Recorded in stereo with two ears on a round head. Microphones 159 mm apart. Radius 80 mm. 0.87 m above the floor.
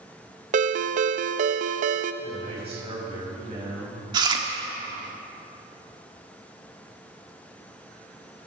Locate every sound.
0.5 s a ringtone: 40° right (ahead or behind), 0.6 m
2.2 s a man speaking: 35° right (ahead or behind), 4.5 m
4.1 s chewing: 25° right (ahead or behind), 1.2 m